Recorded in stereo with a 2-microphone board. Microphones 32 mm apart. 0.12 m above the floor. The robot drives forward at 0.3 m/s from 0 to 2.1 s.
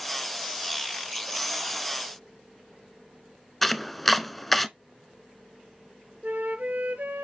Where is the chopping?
5° left (ahead or behind), 0.5 m.